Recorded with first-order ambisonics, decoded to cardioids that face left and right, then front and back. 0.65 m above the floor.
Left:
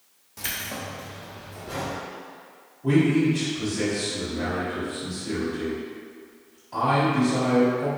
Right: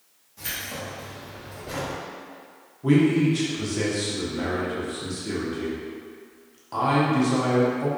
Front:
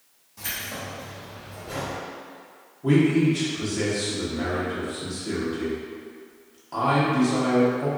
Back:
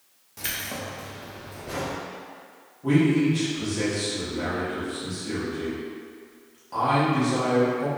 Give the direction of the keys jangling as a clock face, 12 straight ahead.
8 o'clock.